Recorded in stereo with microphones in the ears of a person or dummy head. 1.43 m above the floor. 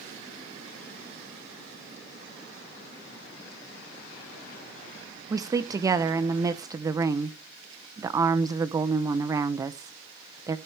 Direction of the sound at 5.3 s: 20° right (ahead or behind).